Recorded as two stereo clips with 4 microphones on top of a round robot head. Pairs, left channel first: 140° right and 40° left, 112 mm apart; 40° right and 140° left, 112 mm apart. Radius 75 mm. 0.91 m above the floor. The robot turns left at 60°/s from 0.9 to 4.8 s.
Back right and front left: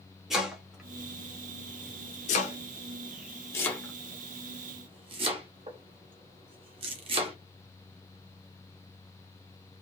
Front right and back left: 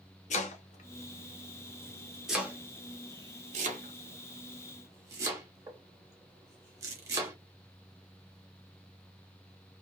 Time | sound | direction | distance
0.3 | chopping | 50° right | 0.9 m